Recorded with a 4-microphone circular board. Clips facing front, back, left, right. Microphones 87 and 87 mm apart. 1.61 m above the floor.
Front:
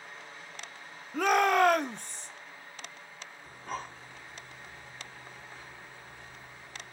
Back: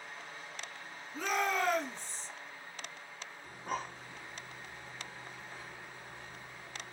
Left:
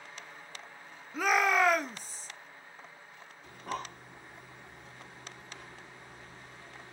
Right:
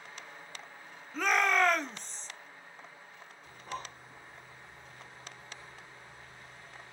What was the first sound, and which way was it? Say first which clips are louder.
A shout: front 9 dB, left 1 dB; 10° left.